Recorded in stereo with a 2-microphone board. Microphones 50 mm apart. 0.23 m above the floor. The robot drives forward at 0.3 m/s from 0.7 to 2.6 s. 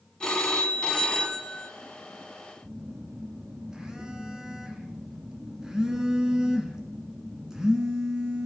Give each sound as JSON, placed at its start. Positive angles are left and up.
{"t": 0.2, "sound": "a phone ringing", "side_deg": 15, "distance_m": 0.9}
{"t": 2.6, "sound": "a phone buzzing", "side_deg": -10, "distance_m": 1.1}